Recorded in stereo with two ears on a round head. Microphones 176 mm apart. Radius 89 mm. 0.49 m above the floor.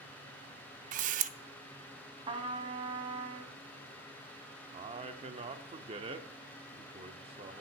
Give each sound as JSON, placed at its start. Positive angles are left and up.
{"t": 0.9, "sound": "a camera shutter", "side_deg": -40, "distance_m": 0.5}
{"t": 2.3, "sound": "a trumpet", "side_deg": -30, "distance_m": 1.2}
{"t": 4.7, "sound": "a man speaking", "side_deg": -30, "distance_m": 0.7}